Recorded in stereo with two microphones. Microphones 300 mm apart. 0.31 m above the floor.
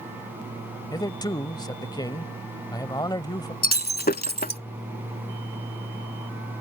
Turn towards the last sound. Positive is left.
turn(degrees=30)  # may be behind; listen again after turning